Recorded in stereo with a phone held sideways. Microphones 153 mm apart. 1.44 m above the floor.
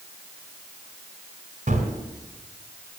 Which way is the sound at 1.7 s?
55° right (ahead or behind).